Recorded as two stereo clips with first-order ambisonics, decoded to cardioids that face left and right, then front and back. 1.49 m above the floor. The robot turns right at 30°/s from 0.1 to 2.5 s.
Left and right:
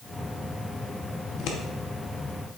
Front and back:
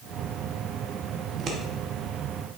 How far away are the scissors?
About 1.0 m.